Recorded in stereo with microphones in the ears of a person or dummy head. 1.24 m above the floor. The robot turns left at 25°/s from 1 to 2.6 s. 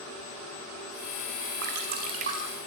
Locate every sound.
1.6 s dripping: 55° right (ahead or behind), 4 m; by 2.4 s 35° right (ahead or behind), 4 m